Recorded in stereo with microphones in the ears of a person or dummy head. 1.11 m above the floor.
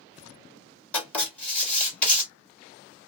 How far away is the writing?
About 1.4 m.